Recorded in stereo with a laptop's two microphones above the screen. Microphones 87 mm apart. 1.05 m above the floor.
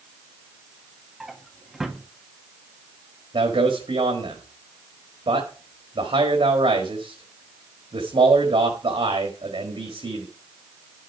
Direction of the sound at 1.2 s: 5° right (ahead or behind).